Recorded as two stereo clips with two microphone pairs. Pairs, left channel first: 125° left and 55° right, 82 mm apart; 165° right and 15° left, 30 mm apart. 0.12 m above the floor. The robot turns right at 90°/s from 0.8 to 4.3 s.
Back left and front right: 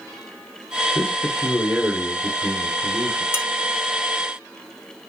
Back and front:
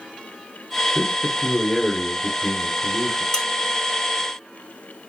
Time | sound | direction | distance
0.9 | a man speaking | 165° left | 1.4 m
3.3 | dishes clattering | 140° left | 0.9 m